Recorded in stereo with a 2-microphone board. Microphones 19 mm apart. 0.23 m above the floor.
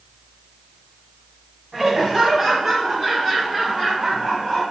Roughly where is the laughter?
Centre.